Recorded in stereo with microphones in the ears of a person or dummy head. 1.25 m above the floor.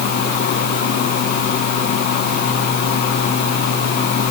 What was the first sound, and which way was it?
Only background noise.